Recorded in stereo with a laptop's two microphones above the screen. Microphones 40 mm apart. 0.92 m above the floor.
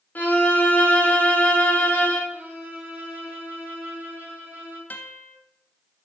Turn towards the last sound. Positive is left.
turn(degrees=45)  # may be behind; listen again after turning